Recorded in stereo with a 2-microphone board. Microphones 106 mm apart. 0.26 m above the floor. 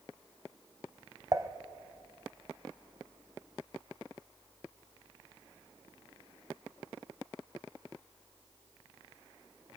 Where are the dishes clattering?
30° right (ahead or behind), 0.9 m.